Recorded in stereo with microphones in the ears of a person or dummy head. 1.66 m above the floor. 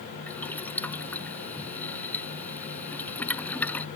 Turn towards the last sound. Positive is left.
turn(degrees=10)  # may be behind; listen again after turning